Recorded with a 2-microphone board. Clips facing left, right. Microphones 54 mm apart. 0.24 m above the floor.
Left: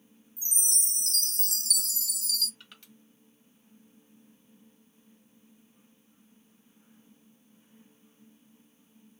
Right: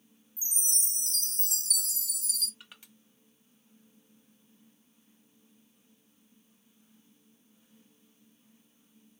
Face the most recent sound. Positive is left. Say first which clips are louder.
# even
turn(degrees=-10)  # may be behind; listen again after turning